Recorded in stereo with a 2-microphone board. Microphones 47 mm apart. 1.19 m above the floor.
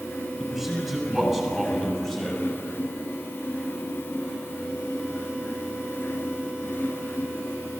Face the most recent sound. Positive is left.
turn(degrees=15)  # may be behind; listen again after turning